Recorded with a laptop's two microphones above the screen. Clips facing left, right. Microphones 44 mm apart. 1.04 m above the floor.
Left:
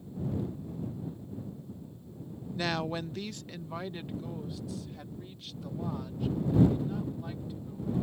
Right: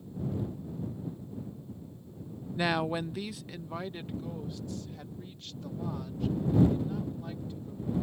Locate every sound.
2.6 s a woman speaking: 15° right (ahead or behind); by 7.9 s 5° left (ahead or behind)